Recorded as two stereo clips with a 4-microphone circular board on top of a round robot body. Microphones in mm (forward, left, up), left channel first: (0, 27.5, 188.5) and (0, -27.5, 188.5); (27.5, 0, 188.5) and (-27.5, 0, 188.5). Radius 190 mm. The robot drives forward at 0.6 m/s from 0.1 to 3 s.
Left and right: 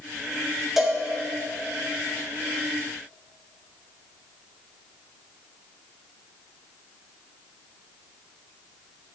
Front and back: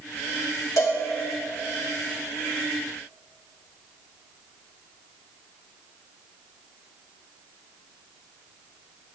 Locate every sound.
0.8 s a cowbell: 5° right, 3 m